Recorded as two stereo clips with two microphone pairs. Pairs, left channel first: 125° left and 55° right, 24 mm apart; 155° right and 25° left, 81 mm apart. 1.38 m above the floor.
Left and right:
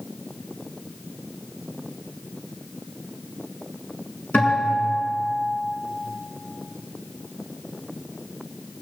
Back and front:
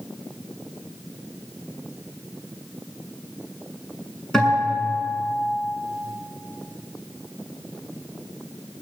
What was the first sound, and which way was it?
A guitar, 120° left.